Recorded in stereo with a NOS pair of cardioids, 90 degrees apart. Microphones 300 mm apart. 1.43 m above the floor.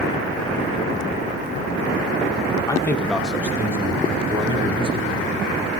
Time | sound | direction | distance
2.7 | a man speaking | 15° left | 1.7 m